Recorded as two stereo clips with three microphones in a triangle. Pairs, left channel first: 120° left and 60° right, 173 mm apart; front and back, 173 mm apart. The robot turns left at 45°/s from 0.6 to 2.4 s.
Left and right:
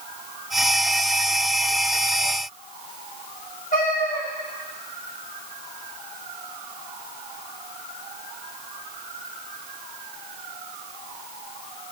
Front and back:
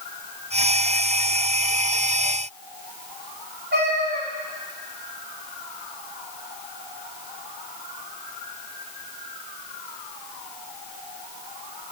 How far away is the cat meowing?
About 1.9 m.